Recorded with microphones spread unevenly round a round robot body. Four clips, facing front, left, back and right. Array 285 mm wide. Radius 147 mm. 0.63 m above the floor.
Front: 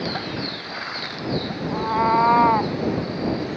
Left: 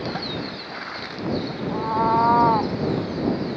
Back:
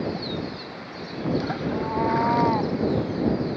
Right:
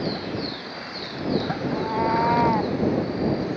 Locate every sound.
1.7 s a cat meowing: 40° left